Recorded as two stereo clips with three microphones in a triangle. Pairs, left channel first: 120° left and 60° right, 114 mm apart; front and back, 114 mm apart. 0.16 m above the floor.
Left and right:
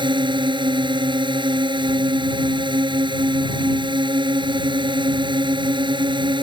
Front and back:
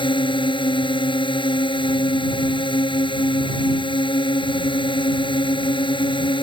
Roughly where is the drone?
Ahead right.